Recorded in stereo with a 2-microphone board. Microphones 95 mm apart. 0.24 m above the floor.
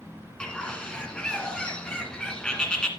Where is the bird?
10° left (ahead or behind), 1.7 m.